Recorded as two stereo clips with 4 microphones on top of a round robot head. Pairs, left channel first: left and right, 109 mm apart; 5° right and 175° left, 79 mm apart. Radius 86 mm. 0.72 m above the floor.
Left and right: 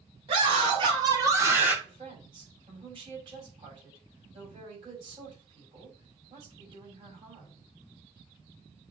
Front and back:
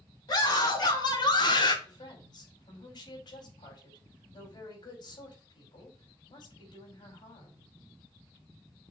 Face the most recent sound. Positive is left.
turn(degrees=-40)